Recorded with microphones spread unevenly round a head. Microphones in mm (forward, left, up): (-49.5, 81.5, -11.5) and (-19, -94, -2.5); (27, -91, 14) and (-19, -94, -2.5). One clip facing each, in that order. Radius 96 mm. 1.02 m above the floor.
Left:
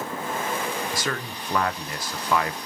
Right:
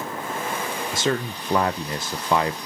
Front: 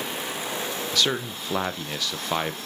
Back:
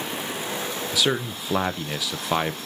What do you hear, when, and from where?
0.9 s a man speaking: 135° right, 0.5 m